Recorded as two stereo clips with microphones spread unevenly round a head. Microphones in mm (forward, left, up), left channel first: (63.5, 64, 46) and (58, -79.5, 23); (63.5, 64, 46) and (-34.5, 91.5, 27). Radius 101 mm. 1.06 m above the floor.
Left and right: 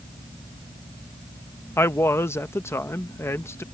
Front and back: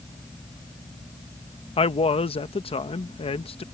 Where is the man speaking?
10° left.